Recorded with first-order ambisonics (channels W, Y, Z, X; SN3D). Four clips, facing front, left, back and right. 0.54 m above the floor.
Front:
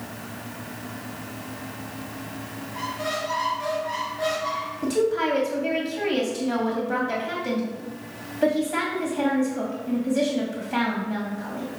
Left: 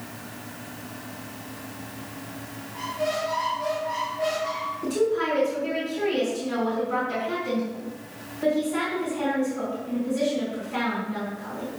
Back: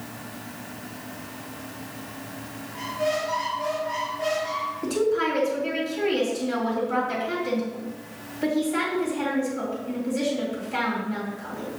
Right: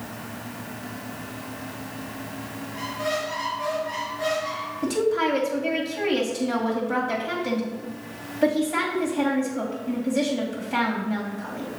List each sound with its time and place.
2.7 s a squeak: 30° right, 4 m
4.8 s a woman speaking: 45° right, 2.5 m